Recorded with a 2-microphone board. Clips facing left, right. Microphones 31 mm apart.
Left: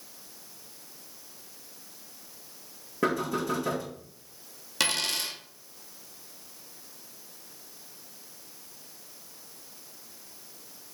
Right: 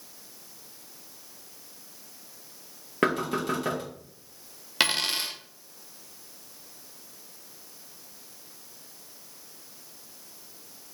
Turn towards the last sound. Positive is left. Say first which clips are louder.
# right 3 dB
turn(degrees=-30)  # may be behind; listen again after turning